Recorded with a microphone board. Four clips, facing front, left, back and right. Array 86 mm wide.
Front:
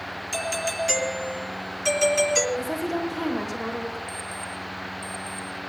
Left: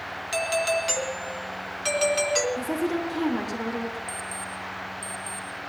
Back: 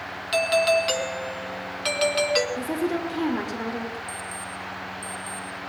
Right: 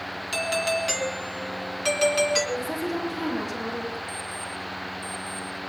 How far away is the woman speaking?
About 5.5 m.